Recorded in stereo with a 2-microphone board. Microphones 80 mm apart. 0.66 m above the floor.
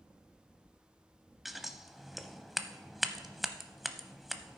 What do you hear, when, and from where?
1.4 s scissors: centre (ahead or behind), 0.5 m